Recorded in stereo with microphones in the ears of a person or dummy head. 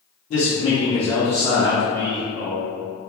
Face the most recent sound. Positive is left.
turn(degrees=-55)  # may be behind; listen again after turning